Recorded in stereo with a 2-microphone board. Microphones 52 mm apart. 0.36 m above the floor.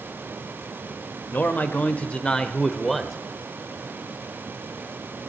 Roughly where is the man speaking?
Left.